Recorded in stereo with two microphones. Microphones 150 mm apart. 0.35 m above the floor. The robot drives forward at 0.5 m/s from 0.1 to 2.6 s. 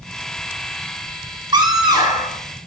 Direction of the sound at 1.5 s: 30° right (ahead or behind).